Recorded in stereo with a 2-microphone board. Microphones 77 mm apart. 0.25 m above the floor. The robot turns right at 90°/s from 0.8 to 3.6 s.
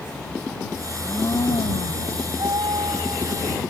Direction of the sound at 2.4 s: 125° right.